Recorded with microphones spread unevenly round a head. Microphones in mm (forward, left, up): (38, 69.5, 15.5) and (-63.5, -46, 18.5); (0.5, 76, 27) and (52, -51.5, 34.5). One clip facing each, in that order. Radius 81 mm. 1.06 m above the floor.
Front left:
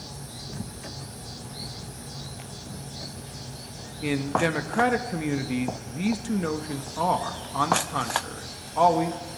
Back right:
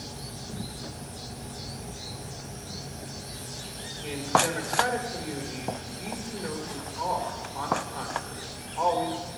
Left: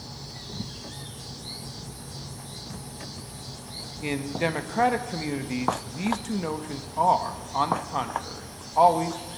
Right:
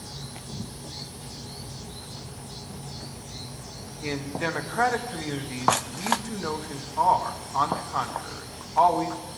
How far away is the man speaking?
About 1.1 m.